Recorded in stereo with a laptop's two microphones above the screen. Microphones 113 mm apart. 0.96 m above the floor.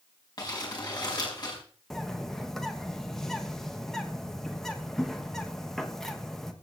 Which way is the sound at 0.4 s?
40° left (ahead or behind).